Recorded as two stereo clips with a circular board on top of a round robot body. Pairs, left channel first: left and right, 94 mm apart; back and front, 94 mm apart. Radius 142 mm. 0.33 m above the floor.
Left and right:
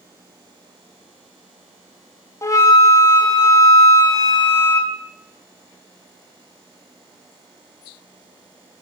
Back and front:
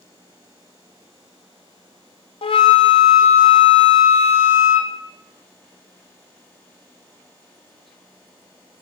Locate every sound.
2.4 s a flute: 150° left, 0.6 m